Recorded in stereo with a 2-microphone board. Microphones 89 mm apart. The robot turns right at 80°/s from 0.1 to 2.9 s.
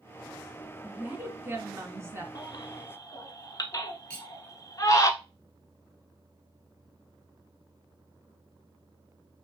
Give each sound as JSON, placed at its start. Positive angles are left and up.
{"t": 0.8, "sound": "a woman speaking", "azimuth_deg": -165, "distance_m": 1.7}
{"t": 2.4, "sound": "a baby crying", "side_deg": 45, "distance_m": 0.7}
{"t": 4.1, "sound": "cutlery clinking", "side_deg": 10, "distance_m": 1.3}